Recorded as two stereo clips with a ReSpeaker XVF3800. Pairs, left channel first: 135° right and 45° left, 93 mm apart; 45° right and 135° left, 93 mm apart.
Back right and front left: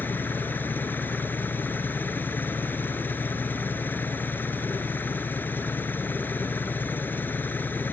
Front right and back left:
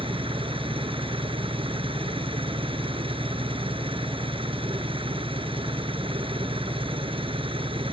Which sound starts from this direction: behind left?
An engine running, at 0.0 s.